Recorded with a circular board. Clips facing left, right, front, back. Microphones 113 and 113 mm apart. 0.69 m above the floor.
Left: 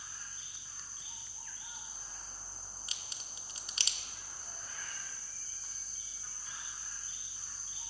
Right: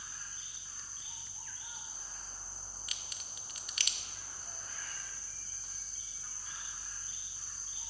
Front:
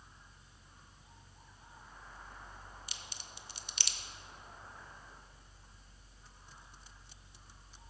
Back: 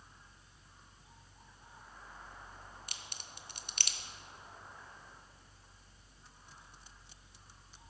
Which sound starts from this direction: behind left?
A crack, at 2.9 s.